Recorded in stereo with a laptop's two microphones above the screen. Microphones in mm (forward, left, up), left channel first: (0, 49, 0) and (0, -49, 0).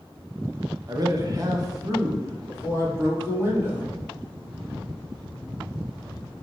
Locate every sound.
0.9 s a man speaking: 40° right (ahead or behind), 0.8 m; by 3.8 s 30° right (ahead or behind), 2.5 m